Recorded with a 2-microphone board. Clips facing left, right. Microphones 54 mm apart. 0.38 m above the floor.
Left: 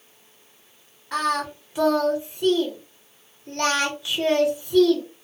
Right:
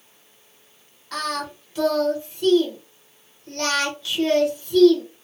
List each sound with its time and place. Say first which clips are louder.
1.1 s singing: left 4 dB; 20° left (ahead or behind), 1.0 m